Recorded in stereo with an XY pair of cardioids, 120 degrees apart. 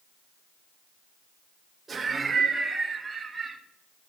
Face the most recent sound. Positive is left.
turn(degrees=-10)